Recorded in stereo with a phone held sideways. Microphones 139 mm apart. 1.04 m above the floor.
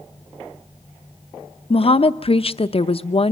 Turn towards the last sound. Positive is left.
turn(degrees=45)  # may be behind; listen again after turning